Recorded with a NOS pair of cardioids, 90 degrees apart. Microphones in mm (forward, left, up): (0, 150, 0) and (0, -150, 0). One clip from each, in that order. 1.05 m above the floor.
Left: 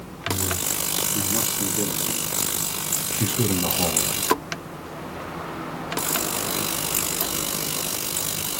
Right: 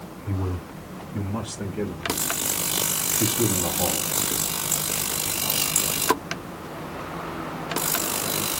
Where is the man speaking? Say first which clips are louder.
Left 8 dB; 20° right, 2 m; by 4.1 s 45° left, 1.3 m.